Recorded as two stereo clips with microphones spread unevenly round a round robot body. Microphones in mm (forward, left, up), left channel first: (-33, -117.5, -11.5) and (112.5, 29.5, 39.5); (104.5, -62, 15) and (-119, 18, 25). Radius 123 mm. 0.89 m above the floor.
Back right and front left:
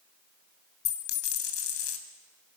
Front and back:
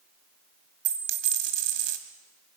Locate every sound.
0.8 s a dropped coin: 175° right, 2.5 m